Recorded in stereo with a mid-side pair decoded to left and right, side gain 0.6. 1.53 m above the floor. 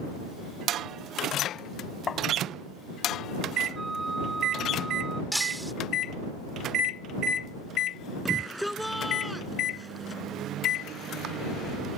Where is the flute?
15° right.